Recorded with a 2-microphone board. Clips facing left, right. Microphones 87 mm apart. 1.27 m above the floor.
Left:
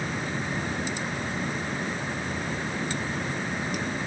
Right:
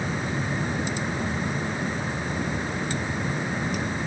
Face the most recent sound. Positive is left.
No sound to turn to.